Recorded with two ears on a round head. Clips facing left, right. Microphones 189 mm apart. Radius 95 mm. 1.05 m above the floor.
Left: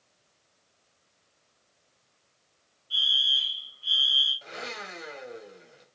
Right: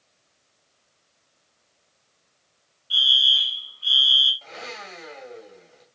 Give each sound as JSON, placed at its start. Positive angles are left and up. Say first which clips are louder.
{"t": 2.9, "sound": "a fire alarm", "louder": "right 6 dB", "side_deg": -65, "distance_m": 6.0}
{"t": 4.4, "sound": "a blender", "louder": "even", "side_deg": 20, "distance_m": 3.0}